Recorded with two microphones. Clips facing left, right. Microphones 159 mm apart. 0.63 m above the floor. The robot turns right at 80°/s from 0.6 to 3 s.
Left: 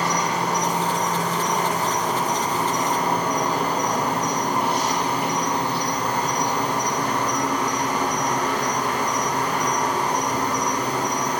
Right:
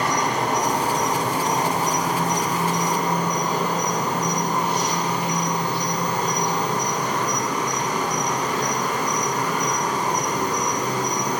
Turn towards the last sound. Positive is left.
turn(degrees=70)